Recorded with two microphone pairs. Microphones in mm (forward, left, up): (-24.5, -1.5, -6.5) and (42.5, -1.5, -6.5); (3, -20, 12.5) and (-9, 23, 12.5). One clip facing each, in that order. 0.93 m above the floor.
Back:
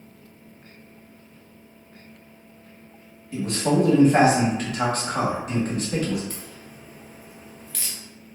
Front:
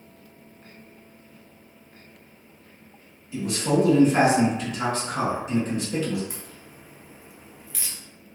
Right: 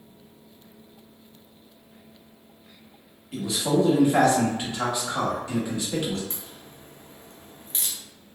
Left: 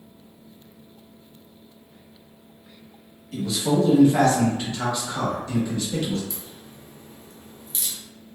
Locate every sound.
3.3 s a man speaking: 140° right, 1.1 m
6.3 s a crack: 75° right, 0.5 m